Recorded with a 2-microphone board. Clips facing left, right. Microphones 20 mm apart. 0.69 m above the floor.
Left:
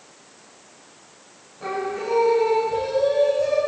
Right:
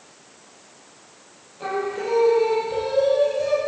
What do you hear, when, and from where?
1.6 s singing: 50° right (ahead or behind), 6 m